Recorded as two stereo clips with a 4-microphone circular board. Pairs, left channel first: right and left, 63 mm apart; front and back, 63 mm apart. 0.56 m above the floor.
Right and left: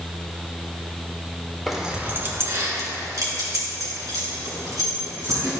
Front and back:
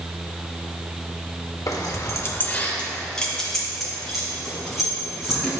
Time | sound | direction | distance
1.7 | keys jangling | straight ahead | 1.0 m